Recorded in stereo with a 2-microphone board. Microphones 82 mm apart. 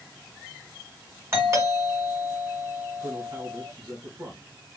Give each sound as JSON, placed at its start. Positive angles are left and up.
{"t": 1.3, "sound": "a doorbell", "side_deg": -35, "distance_m": 2.5}
{"t": 3.0, "sound": "a man speaking", "side_deg": -65, "distance_m": 3.5}